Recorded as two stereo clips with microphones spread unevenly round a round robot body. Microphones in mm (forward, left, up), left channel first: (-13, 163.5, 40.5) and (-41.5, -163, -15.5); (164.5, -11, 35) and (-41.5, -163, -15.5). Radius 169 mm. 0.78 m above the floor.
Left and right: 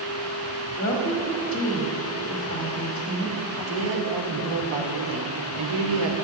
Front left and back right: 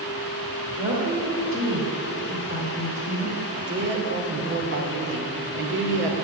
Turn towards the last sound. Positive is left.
turn(degrees=-105)